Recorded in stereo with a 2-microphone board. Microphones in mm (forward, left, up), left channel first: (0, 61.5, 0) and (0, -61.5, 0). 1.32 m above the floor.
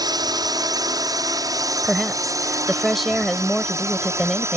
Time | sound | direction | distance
0.0 | a drone | 35° right (ahead or behind) | ?
1.8 | a woman speaking | centre (ahead or behind) | ?